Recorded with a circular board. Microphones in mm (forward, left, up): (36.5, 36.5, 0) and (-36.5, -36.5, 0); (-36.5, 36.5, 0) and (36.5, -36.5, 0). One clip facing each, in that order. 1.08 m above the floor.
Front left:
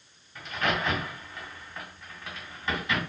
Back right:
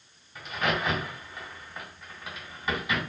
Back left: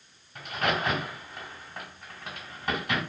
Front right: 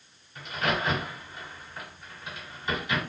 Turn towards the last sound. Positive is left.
turn(degrees=145)